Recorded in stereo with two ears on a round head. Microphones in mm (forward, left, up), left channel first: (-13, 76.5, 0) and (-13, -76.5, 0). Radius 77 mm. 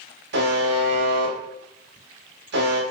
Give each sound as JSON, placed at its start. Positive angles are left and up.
{"t": 0.3, "sound": "a buzzer", "side_deg": -75, "distance_m": 1.1}